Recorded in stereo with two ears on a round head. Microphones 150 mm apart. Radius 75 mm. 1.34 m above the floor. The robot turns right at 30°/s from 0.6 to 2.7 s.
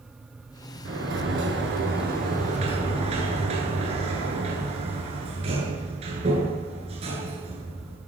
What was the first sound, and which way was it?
A sliding door, 90° right.